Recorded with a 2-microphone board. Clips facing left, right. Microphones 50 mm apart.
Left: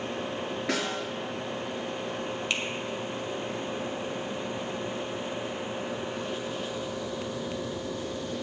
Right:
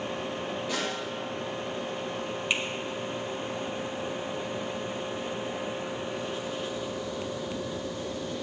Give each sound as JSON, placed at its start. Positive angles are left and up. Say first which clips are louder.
{"t": 0.7, "sound": "a snare drum", "louder": "left 3 dB", "side_deg": 80, "distance_m": 5.5}
{"t": 2.5, "sound": "a finger snap", "louder": "right 2 dB", "side_deg": -15, "distance_m": 1.9}